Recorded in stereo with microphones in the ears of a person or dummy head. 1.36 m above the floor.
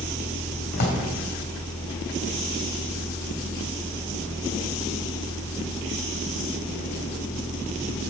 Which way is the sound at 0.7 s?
50° left (ahead or behind).